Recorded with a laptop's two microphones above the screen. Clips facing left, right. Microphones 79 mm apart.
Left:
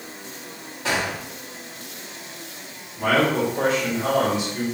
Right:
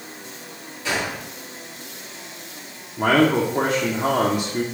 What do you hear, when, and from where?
0.8 s a gunshot: 45° left (ahead or behind), 2.5 m
3.0 s a man speaking: 45° right (ahead or behind), 0.8 m